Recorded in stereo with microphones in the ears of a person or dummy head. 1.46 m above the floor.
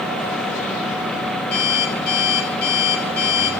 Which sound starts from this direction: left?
An alarm clock, at 1.5 s.